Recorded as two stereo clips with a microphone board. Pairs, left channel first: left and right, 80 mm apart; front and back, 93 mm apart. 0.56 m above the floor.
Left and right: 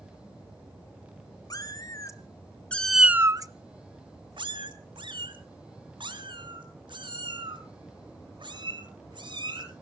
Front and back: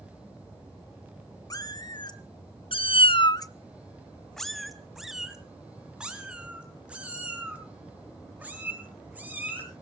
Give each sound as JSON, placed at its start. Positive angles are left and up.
{"t": 1.5, "sound": "a cat meowing", "azimuth_deg": 50, "distance_m": 1.7}